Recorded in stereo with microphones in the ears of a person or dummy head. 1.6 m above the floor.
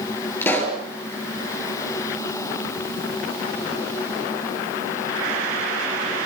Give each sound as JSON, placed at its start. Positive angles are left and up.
{"t": 0.4, "sound": "a pop", "side_deg": 10, "distance_m": 5.5}